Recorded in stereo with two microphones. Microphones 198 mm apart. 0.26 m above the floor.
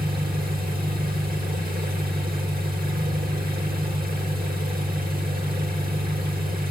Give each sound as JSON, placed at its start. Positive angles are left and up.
{"t": 0.0, "sound": "an engine running", "side_deg": -50, "distance_m": 1.8}